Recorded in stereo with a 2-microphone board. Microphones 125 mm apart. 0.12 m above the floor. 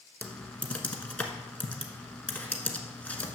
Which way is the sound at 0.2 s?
10° left (ahead or behind).